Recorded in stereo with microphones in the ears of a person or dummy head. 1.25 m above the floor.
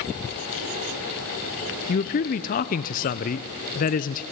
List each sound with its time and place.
1.9 s a man speaking: 45° left (ahead or behind), 0.6 m